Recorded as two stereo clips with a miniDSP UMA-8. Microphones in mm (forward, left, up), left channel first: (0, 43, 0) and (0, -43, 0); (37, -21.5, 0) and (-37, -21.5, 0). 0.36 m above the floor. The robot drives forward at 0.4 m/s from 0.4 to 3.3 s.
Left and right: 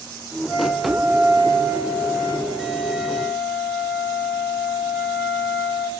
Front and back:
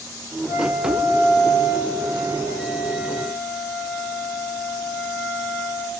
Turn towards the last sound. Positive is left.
turn(degrees=-165)